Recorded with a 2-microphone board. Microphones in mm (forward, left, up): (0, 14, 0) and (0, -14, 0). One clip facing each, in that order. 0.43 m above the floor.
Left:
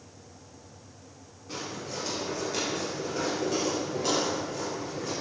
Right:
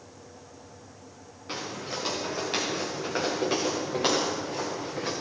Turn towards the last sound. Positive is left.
turn(degrees=-85)